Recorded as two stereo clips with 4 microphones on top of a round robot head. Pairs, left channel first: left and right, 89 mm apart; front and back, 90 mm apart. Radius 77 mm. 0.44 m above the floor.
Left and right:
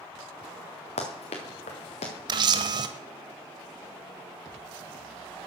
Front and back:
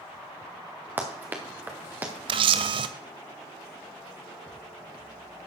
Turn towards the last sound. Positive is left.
turn(degrees=-140)